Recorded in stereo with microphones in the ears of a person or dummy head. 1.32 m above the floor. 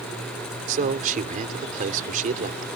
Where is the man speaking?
40° right (ahead or behind).